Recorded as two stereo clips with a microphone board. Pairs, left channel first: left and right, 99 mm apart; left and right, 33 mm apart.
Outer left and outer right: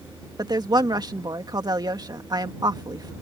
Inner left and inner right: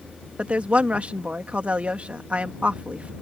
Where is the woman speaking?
45° right (ahead or behind).